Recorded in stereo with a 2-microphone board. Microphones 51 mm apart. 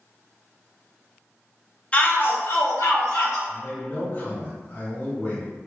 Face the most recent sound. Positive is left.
turn(degrees=30)  # may be behind; listen again after turning